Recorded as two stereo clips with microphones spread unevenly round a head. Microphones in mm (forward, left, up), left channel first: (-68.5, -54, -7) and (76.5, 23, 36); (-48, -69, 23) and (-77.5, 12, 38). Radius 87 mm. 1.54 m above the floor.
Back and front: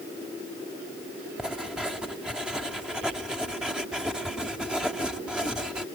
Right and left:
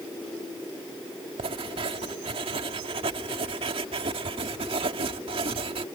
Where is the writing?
110° left.